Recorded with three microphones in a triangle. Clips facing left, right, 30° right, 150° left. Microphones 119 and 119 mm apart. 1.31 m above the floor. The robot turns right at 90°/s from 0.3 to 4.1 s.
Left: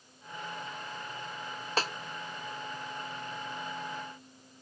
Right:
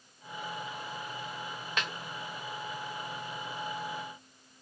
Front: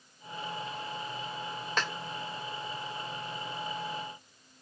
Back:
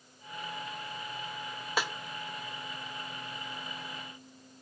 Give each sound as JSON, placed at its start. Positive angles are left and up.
{"t": 1.8, "sound": "a snare drum", "azimuth_deg": 75, "distance_m": 0.6}